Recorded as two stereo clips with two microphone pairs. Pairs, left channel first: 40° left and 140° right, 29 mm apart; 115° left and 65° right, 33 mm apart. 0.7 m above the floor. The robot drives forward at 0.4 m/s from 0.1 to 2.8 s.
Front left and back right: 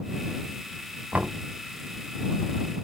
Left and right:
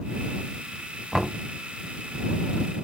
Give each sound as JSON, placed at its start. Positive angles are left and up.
{"t": 1.1, "sound": "knocking", "azimuth_deg": -155, "distance_m": 1.1}